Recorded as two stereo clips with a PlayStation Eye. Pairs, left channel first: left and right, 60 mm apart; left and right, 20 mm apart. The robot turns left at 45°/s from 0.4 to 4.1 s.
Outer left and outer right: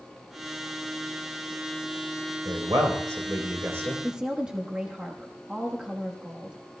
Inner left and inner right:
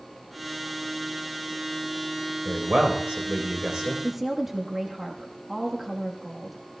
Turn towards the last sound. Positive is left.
turn(degrees=-15)  # may be behind; listen again after turning